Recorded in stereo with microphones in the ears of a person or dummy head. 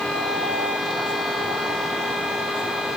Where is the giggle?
No giggle in this recording.